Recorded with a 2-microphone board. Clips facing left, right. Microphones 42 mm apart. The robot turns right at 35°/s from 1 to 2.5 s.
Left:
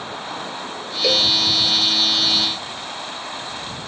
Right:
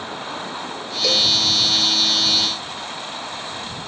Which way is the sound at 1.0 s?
20° left (ahead or behind).